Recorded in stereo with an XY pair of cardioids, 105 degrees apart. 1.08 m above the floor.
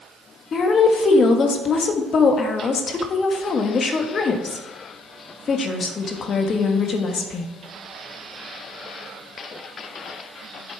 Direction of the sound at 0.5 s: 50° left.